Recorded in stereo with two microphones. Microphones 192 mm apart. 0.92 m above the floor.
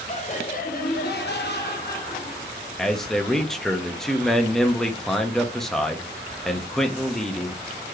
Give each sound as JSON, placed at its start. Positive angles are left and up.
{"t": 0.1, "sound": "laughter", "side_deg": 35, "distance_m": 1.5}
{"t": 2.8, "sound": "a man speaking", "side_deg": 0, "distance_m": 0.9}